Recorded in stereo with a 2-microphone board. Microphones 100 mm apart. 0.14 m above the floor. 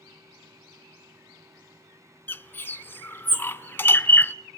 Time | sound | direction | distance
2.3 | a bird | 20° left (ahead or behind) | 0.5 m